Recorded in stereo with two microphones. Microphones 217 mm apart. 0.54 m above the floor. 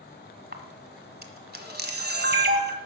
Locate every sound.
0.5 s a camera shutter: 50° right (ahead or behind), 1.4 m